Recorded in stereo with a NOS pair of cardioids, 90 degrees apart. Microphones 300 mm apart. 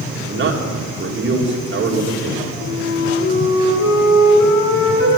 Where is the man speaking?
40° right, 2.5 m.